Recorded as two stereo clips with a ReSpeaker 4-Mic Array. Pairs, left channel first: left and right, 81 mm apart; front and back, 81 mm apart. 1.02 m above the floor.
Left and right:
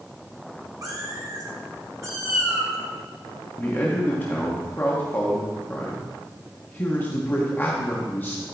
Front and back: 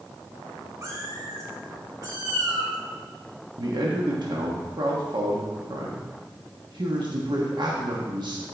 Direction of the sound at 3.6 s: 155° left.